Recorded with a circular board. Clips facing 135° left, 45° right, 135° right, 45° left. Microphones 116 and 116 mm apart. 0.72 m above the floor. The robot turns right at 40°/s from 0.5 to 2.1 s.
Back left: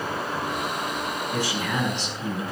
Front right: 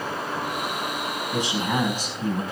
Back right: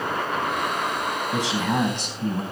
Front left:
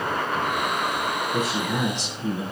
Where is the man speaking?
120° right, 5 m; by 2.4 s 90° right, 5 m.